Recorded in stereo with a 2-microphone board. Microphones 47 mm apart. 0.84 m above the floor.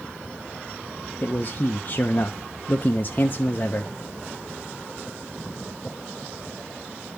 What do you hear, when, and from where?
1.2 s a man speaking: 45° left (ahead or behind), 0.7 m